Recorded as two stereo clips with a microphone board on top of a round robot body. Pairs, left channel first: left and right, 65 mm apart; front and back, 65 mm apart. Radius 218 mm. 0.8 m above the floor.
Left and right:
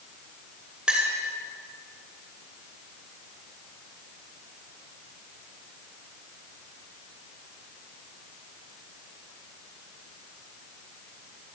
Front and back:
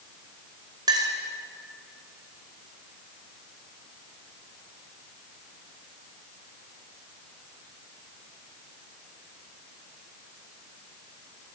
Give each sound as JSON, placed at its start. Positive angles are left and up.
{"t": 0.9, "sound": "a clink", "azimuth_deg": -165, "distance_m": 3.0}